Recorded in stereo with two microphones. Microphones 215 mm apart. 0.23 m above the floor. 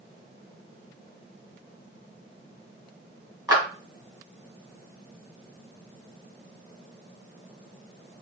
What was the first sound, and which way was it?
A clap, 20° right (ahead or behind).